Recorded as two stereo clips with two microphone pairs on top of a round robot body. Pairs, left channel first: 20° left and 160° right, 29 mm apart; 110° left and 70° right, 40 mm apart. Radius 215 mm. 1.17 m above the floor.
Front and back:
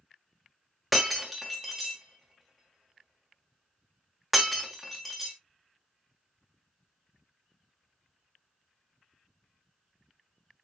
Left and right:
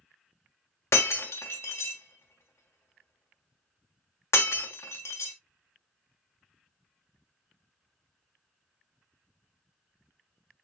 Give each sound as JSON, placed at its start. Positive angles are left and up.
{"t": 0.9, "sound": "breaking glass", "azimuth_deg": 120, "distance_m": 1.2}